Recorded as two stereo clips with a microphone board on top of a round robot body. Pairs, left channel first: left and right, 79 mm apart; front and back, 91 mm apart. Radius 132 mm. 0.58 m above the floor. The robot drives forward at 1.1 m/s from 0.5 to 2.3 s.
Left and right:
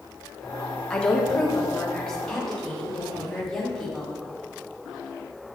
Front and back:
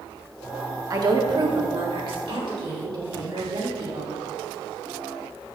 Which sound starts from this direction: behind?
A woman speaking, at 0.9 s.